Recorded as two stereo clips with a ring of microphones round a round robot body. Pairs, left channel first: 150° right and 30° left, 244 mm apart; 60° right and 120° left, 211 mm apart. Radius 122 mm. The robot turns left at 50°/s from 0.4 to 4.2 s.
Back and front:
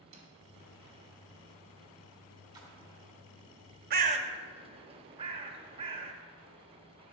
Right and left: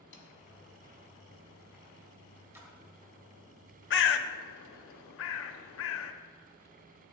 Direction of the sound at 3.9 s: 25° right.